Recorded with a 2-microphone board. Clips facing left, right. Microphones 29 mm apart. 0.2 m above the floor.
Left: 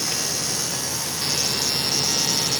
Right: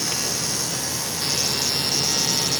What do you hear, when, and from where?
Only background noise.